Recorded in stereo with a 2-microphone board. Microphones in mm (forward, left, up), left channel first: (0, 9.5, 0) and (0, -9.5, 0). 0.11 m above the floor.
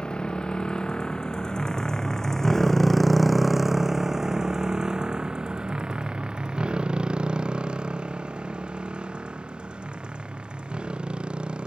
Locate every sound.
0.0 s a motorcycle: 60° left (ahead or behind); by 11.7 s 75° right (ahead or behind)